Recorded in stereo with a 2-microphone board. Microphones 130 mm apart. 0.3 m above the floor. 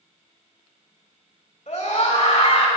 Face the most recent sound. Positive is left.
turn(degrees=60)  # may be behind; listen again after turning